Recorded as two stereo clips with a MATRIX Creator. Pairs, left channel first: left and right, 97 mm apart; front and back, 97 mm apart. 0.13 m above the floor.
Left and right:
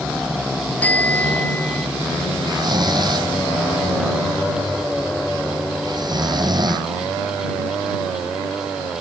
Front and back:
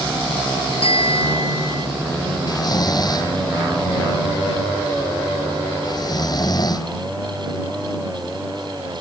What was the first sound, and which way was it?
A bicycle bell, 15° left.